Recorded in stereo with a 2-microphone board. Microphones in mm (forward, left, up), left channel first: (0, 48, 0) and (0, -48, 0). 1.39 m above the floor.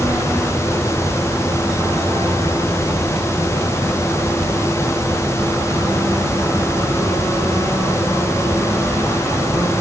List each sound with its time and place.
Only background noise.